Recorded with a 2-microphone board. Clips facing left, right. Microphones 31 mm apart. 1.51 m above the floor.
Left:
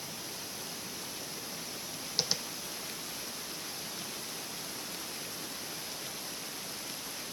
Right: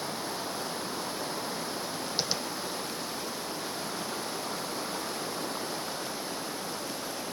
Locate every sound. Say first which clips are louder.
0.0 s running water: right 8 dB; 60° right (ahead or behind)
2.2 s tapping: even; centre (ahead or behind)